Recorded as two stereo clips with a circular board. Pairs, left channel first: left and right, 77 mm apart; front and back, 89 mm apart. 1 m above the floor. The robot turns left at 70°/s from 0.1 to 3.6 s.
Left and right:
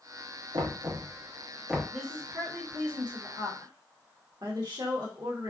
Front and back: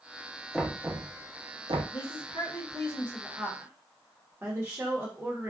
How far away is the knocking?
About 0.7 m.